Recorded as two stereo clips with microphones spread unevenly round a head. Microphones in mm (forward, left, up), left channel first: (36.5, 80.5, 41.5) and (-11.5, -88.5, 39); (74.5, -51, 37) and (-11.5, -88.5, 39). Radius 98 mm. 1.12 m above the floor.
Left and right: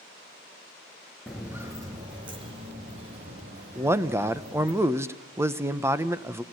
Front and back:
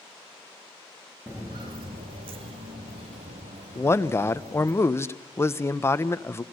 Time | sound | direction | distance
1.3 | footsteps | 165° left | 1.2 m
3.8 | a man speaking | 35° right | 1.0 m